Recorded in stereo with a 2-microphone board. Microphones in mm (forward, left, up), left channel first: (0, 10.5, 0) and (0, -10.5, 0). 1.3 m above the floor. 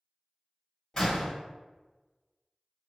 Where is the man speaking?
I don't hear a man speaking.